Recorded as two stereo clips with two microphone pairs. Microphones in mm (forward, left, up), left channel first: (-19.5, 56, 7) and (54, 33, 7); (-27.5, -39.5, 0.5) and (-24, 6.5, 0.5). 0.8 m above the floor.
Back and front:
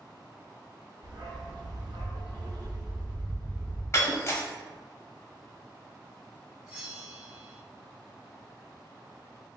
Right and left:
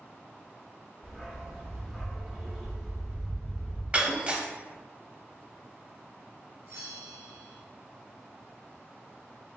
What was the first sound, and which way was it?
A dog barking, 5° right.